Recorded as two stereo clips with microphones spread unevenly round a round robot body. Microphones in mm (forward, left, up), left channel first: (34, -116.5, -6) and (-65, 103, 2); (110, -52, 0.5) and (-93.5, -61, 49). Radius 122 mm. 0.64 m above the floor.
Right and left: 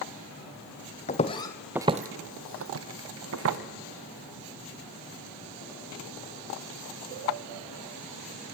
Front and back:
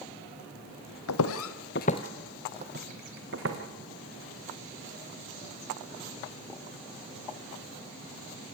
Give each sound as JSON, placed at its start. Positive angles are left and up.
{"t": 1.1, "sound": "footsteps", "azimuth_deg": -5, "distance_m": 1.3}